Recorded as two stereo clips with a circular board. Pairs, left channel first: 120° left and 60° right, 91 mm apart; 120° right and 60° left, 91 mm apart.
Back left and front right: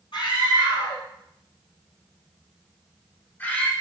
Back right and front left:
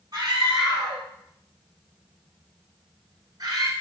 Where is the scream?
100° left, 2.5 m; by 3.7 s 50° left, 1.5 m.